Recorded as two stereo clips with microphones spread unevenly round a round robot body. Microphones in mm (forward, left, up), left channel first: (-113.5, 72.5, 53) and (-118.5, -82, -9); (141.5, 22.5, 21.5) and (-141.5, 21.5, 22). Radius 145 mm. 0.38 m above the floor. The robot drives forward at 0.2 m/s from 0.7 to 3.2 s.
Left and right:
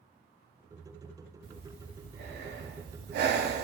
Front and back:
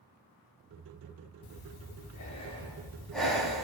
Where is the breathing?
50° right, 0.6 m; by 3.6 s 90° right, 0.5 m.